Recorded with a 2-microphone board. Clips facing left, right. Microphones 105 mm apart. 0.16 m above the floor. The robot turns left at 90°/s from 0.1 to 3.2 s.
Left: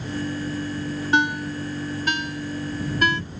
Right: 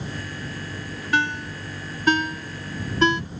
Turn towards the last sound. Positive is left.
turn(degrees=-20)  # may be behind; listen again after turning